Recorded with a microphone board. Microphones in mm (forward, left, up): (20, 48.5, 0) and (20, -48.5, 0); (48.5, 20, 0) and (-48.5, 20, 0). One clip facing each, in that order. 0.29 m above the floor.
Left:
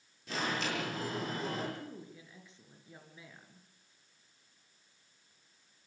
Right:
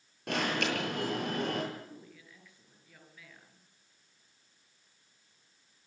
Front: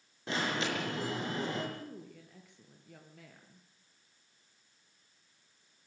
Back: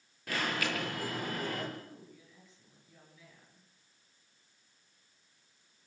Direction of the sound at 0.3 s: 65° right.